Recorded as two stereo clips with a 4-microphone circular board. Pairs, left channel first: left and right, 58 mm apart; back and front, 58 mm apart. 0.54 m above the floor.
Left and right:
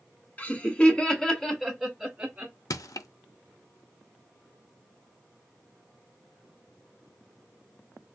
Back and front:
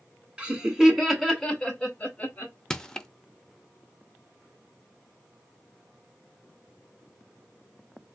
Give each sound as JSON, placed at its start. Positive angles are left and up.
{"t": 0.4, "sound": "laughter", "azimuth_deg": 55, "distance_m": 1.3}
{"t": 2.7, "sound": "crushing", "azimuth_deg": 100, "distance_m": 0.5}